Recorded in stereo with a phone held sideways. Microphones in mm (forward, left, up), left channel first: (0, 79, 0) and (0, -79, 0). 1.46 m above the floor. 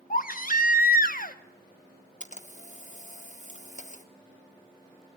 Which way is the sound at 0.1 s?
65° left (ahead or behind).